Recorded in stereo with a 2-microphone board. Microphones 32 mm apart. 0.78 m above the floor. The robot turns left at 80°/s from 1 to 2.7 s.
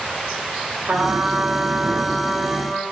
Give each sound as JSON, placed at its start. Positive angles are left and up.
{"t": 0.9, "sound": "a trumpet", "azimuth_deg": -70, "distance_m": 0.7}